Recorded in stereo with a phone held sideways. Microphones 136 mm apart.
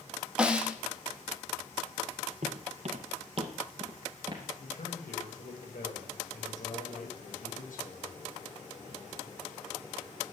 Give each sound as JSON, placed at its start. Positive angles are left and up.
{"t": 0.4, "sound": "a snare drum", "side_deg": -5, "distance_m": 1.5}
{"t": 2.4, "sound": "footsteps", "side_deg": -60, "distance_m": 2.5}
{"t": 4.6, "sound": "a man speaking", "side_deg": 90, "distance_m": 5.5}